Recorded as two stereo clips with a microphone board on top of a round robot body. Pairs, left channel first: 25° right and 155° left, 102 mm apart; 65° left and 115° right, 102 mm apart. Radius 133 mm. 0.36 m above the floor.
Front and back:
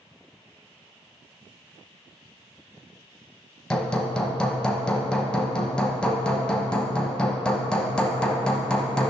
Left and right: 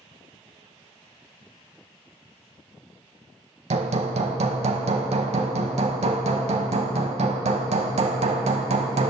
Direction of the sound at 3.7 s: 105° right.